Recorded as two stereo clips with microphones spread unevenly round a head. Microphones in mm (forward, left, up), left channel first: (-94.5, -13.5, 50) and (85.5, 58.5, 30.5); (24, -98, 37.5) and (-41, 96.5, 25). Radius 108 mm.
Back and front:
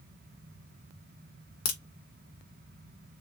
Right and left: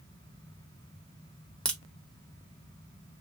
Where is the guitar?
I don't hear a guitar.